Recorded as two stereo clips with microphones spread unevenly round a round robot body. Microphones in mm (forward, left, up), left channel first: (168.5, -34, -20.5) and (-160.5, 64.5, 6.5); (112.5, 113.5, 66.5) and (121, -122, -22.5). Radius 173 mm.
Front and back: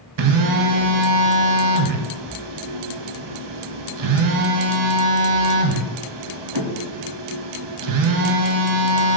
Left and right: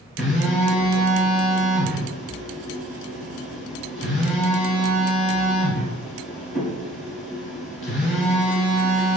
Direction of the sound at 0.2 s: 140° left.